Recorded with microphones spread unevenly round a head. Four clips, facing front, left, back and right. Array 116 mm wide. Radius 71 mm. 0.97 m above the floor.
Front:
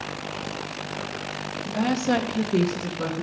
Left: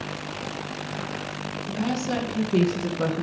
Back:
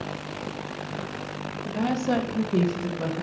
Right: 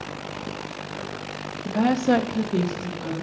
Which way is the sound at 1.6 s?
80° right.